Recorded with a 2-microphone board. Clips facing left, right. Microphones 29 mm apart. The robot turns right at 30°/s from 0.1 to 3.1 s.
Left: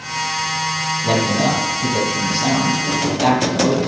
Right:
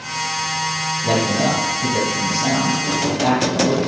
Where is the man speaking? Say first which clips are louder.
Left 1 dB; 5° left, 1.9 m; by 3.8 s 70° left, 1.9 m.